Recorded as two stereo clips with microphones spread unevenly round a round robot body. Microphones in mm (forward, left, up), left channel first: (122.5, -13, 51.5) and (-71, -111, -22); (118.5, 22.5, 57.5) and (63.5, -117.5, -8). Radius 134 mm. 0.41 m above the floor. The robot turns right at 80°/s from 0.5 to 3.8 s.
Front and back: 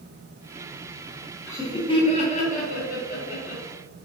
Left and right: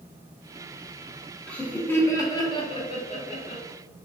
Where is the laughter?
90° right, 0.7 m; by 3.6 s 85° left, 0.7 m.